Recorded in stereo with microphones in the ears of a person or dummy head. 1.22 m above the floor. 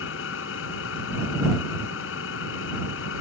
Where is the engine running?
85° left.